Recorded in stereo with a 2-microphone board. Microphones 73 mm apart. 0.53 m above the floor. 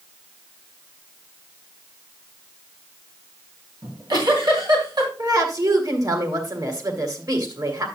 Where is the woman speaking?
55° right (ahead or behind), 2.5 m.